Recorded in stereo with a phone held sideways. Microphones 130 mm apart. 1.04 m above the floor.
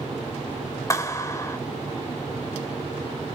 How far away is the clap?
About 2 m.